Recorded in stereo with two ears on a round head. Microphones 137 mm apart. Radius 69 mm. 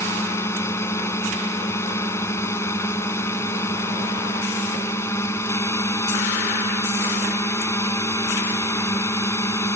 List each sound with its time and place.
0.0 s a drone: 20° left (ahead or behind)